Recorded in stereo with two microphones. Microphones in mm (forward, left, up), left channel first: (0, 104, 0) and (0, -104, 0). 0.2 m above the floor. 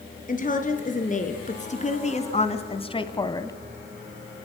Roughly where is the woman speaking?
Left.